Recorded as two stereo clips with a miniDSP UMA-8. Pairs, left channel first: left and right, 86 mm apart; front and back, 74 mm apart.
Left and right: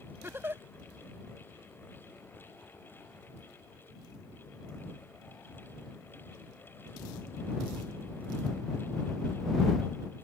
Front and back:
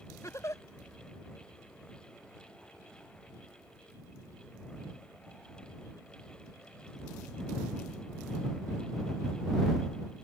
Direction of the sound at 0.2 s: 35° right.